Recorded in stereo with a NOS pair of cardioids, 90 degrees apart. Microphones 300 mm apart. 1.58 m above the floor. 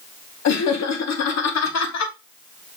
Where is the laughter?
60° left, 1.6 m.